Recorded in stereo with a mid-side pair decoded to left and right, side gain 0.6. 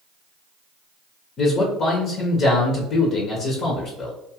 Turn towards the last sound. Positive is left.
turn(degrees=45)